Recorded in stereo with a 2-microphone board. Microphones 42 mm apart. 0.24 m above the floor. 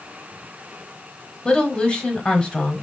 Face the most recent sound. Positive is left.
turn(degrees=25)  # may be behind; listen again after turning